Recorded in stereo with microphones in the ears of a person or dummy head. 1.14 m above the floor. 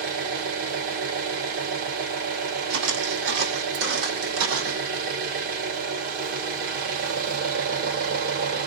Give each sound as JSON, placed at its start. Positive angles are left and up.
{"t": 0.0, "sound": "an engine running", "side_deg": -60, "distance_m": 2.0}
{"t": 2.7, "sound": "footsteps", "side_deg": -70, "distance_m": 3.0}